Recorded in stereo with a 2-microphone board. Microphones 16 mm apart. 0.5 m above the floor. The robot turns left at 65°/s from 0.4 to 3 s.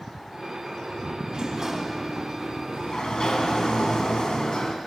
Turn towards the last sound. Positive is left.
turn(degrees=120)